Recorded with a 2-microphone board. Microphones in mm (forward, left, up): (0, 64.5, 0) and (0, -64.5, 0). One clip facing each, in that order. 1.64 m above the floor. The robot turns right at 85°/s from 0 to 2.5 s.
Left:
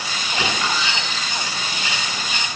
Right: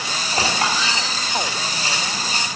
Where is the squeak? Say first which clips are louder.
Right 2 dB; 140° right, 3 m; by 1.0 s 85° right, 3 m.